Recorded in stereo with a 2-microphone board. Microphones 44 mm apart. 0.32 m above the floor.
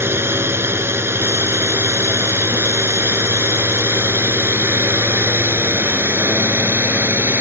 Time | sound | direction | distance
0.0 | a drone | 70° right (ahead or behind) | ?